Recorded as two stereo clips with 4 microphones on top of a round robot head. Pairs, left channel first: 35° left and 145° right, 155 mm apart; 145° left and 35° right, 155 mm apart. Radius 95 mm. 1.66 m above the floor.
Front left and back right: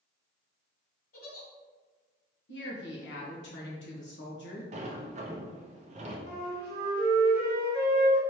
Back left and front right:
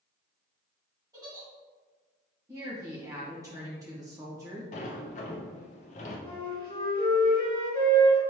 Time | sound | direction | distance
1.1 | a giggle | 30° left | 1.9 m
2.5 | a woman speaking | 35° left | 1.6 m
4.7 | a sliding door | straight behind | 0.5 m
6.3 | a flute | 160° right | 1.6 m